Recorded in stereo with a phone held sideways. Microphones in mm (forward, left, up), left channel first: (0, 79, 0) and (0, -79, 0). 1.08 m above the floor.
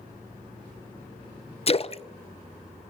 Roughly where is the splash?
Left.